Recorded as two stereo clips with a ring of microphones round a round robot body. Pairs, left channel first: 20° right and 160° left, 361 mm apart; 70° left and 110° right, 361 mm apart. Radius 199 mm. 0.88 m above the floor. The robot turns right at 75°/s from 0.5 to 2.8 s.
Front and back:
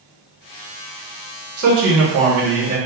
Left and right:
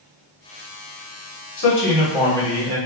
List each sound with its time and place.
1.6 s a man speaking: 110° left, 1.3 m; by 2.8 s 160° right, 1.3 m